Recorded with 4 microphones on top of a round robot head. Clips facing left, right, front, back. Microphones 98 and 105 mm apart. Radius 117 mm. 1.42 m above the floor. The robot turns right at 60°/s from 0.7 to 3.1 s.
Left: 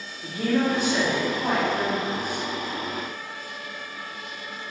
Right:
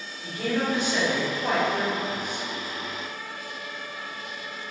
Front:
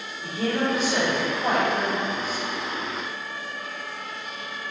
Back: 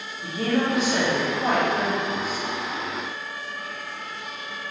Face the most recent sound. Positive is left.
turn(degrees=-70)